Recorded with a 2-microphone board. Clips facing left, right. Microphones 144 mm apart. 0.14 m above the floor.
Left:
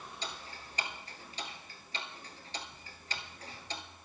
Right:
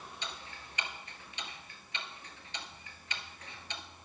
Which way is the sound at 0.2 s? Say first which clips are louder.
Left 3 dB; 35° left (ahead or behind).